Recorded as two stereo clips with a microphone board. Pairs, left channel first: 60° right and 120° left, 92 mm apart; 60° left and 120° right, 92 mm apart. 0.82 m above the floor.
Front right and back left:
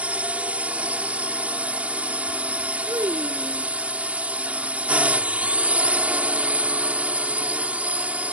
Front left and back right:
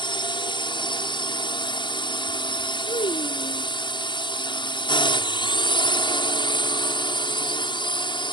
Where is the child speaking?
65° left.